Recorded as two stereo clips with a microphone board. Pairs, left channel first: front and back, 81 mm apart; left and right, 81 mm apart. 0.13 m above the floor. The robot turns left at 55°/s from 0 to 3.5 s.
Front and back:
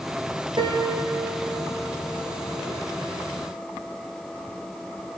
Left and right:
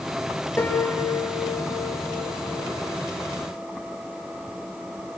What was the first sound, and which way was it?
A piano, 155° left.